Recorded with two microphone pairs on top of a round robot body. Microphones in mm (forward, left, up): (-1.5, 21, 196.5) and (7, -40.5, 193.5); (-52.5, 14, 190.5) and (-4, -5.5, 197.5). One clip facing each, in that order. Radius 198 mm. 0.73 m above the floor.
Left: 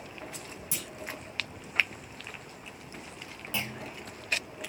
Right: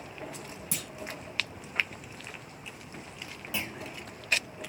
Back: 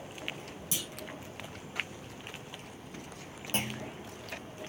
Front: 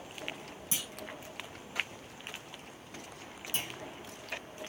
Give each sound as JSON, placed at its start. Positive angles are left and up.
{"t": 0.7, "sound": "a clunk", "azimuth_deg": -80, "distance_m": 2.0}
{"t": 3.5, "sound": "a clunk", "azimuth_deg": -165, "distance_m": 1.1}